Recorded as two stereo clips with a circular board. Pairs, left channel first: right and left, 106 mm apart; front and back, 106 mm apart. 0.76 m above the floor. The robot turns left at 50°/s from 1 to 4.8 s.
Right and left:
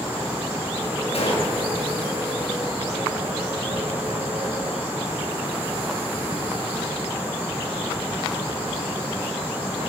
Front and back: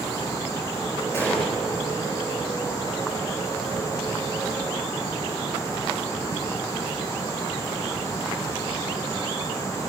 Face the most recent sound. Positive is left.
turn(degrees=115)